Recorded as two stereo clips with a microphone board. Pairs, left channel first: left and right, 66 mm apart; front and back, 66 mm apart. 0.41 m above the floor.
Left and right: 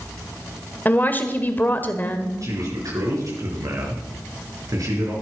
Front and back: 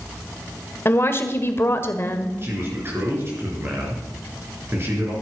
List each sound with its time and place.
0.8 s a woman speaking: 35° left, 1.4 m
2.4 s a man speaking: 125° right, 5 m